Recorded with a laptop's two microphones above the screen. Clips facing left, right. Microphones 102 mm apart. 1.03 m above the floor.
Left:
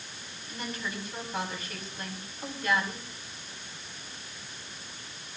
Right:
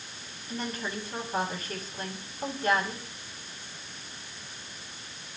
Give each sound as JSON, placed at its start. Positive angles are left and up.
{"t": 0.5, "sound": "a woman speaking", "side_deg": -40, "distance_m": 8.5}